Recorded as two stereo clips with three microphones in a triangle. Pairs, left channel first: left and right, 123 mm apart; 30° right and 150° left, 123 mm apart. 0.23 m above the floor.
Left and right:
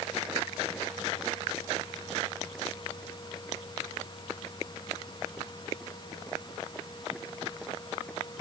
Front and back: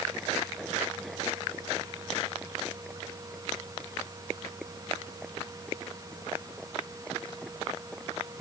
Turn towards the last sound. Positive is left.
No sound to turn to.